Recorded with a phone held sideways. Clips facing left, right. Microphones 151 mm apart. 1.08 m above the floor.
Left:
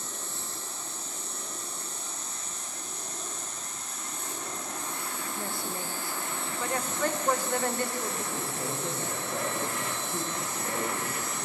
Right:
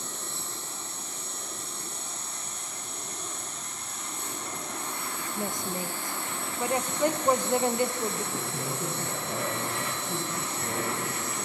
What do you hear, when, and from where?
0.0 s an insect: 70° right (ahead or behind), 6 m
5.4 s a woman speaking: 20° right (ahead or behind), 1.0 m
8.3 s a man speaking: 60° right (ahead or behind), 9.5 m